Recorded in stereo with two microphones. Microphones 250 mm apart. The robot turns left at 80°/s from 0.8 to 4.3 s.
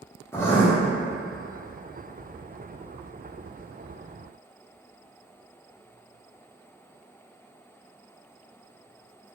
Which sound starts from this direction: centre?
Writing, at 0.3 s.